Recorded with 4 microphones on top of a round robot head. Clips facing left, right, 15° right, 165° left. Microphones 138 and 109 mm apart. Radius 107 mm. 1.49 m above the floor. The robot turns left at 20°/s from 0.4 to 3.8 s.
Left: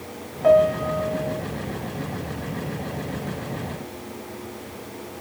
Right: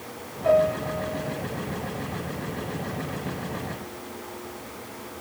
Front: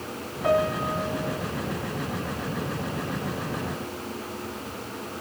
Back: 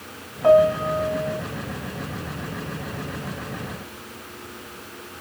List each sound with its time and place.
0.4 s a piano: 115° left, 2 m; by 1.4 s 95° left, 2 m